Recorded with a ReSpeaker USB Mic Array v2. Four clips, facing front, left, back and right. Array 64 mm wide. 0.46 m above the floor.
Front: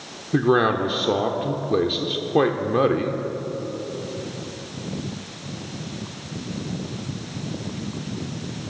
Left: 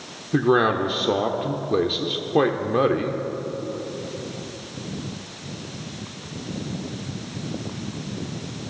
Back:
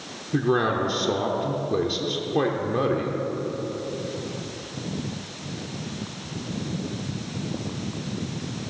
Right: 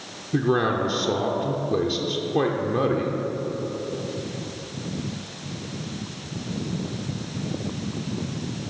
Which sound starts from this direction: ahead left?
A man speaking, at 0.3 s.